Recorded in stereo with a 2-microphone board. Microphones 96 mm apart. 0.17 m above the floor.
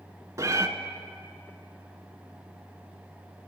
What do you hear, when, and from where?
0.4 s a cat meowing: 35° right (ahead or behind), 0.5 m